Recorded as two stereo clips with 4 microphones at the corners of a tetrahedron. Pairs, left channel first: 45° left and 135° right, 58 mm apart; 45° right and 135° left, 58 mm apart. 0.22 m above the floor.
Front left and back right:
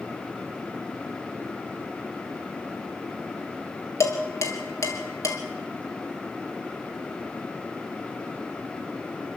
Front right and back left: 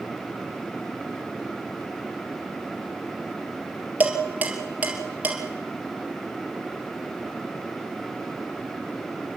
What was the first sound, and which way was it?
Dishes clattering, 70° left.